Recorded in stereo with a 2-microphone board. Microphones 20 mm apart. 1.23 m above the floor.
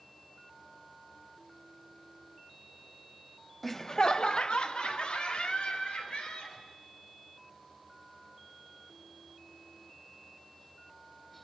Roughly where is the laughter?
Centre.